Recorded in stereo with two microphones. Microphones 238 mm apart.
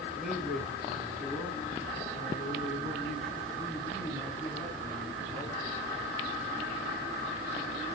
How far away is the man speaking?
About 3 m.